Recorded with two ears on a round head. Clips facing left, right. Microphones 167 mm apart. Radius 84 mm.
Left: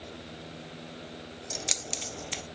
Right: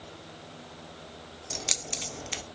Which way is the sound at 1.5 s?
Centre (ahead or behind).